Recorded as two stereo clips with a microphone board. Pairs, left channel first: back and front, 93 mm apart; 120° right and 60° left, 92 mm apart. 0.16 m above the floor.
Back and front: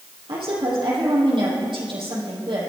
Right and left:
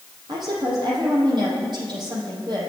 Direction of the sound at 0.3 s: 25° left.